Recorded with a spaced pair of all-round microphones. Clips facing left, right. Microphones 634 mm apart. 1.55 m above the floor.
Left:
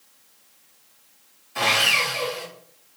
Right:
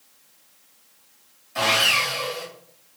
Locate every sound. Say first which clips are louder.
1.6 s sawing: right 1 dB; 10° right (ahead or behind), 1.1 m